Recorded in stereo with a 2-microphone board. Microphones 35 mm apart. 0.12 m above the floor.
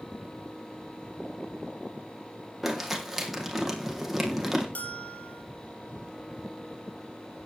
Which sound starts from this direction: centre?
Crumpling, at 2.6 s.